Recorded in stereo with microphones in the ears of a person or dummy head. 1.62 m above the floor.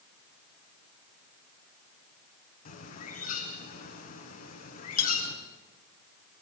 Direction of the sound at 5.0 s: 65° left (ahead or behind).